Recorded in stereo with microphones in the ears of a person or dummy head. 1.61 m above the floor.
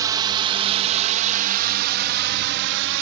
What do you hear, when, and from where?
0.0 s a drone: 25° right (ahead or behind); by 3.0 s 70° right (ahead or behind)